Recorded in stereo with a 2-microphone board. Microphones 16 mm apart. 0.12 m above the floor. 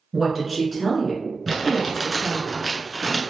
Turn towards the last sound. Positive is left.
turn(degrees=5)  # may be behind; listen again after turning